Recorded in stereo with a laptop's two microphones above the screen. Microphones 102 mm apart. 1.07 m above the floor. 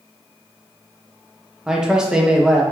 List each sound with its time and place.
1.7 s a man speaking: 10° right (ahead or behind), 0.9 m